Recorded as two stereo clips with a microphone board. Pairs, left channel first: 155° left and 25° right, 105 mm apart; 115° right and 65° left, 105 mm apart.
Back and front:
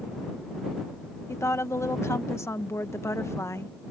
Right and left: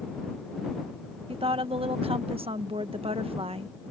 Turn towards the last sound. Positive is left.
turn(degrees=95)